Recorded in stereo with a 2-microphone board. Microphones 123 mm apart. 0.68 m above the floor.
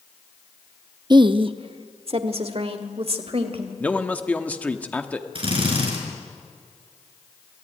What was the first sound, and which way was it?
A woman speaking, 35° right (ahead or behind).